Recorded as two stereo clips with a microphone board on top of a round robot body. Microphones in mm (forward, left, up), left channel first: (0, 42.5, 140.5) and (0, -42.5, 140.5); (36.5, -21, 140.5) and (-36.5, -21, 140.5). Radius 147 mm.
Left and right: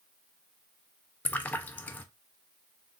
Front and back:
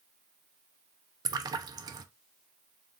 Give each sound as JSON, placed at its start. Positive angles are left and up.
{"t": 1.2, "sound": "a splash", "azimuth_deg": 160, "distance_m": 0.5}